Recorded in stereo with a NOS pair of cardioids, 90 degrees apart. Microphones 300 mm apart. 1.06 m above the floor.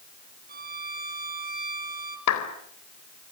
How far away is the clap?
About 4 m.